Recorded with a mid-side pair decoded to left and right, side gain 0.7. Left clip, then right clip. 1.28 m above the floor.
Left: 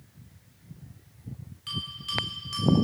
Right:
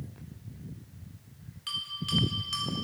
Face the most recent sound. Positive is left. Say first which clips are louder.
# even
turn(degrees=-15)